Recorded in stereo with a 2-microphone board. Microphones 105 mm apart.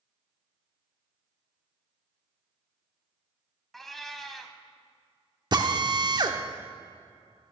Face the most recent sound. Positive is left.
turn(degrees=-45)  # may be behind; listen again after turning